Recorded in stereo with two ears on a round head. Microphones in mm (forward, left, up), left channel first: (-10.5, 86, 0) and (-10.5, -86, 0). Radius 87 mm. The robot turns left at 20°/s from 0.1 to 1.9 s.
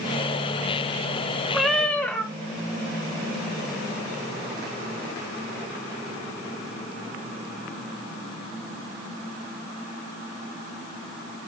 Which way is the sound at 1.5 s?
Centre (ahead or behind).